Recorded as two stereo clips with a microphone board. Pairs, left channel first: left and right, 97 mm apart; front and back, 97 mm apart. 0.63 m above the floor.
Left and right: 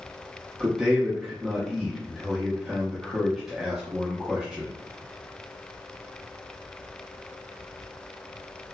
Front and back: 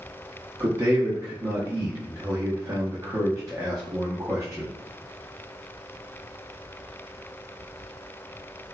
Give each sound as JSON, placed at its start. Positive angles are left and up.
{"t": 0.6, "sound": "a man speaking", "azimuth_deg": -175, "distance_m": 0.6}